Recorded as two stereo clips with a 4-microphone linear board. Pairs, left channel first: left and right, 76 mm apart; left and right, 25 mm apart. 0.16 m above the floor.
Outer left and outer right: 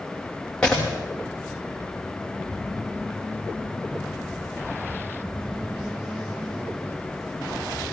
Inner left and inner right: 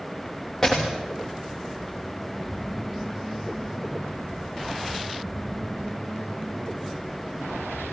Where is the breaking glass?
10° left (ahead or behind), 9 m.